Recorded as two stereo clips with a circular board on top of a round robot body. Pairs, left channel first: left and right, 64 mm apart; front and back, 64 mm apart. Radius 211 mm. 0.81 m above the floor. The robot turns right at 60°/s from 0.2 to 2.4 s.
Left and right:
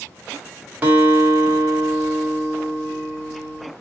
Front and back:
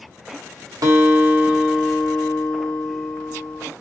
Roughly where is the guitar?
Behind right.